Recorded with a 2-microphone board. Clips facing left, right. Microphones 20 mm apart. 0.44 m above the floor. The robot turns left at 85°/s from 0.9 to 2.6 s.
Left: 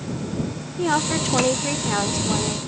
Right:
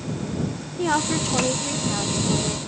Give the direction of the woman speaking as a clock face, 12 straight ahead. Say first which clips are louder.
Left 1 dB; 6 o'clock.